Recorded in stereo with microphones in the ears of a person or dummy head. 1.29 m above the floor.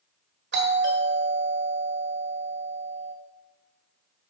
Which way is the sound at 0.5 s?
55° right (ahead or behind).